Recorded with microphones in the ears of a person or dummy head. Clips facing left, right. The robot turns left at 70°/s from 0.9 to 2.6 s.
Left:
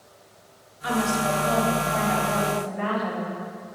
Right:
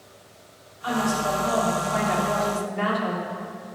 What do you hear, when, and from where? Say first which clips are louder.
0.8 s a woman speaking: even; 35° left, 3.5 m; by 3.8 s 85° right, 3.5 m